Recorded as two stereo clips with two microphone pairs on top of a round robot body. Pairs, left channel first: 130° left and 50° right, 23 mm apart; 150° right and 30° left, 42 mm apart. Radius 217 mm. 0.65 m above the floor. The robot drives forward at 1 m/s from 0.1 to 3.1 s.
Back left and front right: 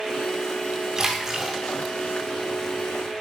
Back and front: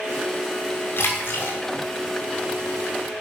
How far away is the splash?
About 3 m.